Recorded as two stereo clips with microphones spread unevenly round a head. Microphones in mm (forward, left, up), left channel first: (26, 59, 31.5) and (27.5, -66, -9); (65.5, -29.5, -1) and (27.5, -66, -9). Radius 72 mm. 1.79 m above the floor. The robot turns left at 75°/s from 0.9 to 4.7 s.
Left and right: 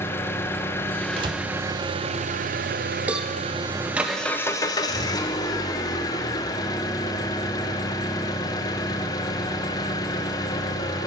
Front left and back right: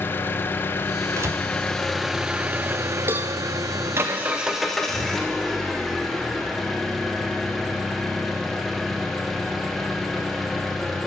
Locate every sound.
0.0 s an engine running: 45° left, 0.8 m; by 11.1 s 120° left, 0.8 m
1.2 s a door slam: 150° right, 1.0 m; by 1.4 s 165° right, 1.0 m
3.1 s a cowbell: 175° left, 0.6 m; by 3.3 s 160° left, 0.6 m